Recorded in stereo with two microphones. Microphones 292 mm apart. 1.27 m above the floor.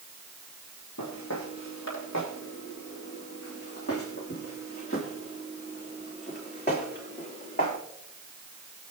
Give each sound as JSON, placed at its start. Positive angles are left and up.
{"t": 1.0, "sound": "footsteps", "side_deg": 70, "distance_m": 3.5}